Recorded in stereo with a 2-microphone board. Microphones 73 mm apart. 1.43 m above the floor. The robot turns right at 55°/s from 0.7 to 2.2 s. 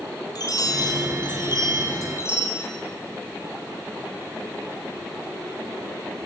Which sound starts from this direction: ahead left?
A chime, at 0.3 s.